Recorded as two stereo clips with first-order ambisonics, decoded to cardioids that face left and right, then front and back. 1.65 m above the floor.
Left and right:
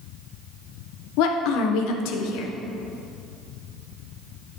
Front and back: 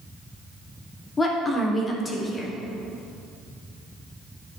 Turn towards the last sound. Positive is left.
turn(degrees=70)